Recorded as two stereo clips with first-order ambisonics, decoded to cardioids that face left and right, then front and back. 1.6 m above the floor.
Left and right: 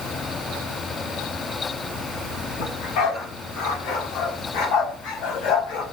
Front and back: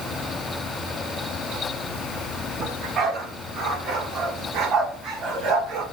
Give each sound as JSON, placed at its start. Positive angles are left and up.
{"t": 2.6, "sound": "a dog barking", "azimuth_deg": 120, "distance_m": 6.5}